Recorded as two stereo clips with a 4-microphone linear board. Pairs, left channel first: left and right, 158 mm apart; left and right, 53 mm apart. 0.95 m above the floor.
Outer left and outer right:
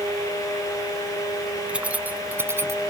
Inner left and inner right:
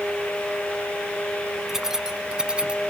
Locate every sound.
1.7 s keys jangling: 5° right (ahead or behind); by 2.9 s 20° right (ahead or behind)